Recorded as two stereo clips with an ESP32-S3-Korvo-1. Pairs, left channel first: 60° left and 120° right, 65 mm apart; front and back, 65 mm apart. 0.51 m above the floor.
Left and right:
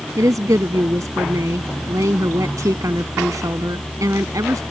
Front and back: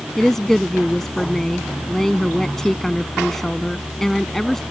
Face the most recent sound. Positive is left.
turn(degrees=-85)